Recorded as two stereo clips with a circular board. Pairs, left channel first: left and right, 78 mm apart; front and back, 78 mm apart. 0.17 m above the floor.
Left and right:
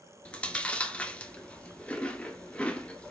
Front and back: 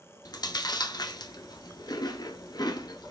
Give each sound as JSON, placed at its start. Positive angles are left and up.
{"t": 0.2, "sound": "chewing", "azimuth_deg": 15, "distance_m": 1.1}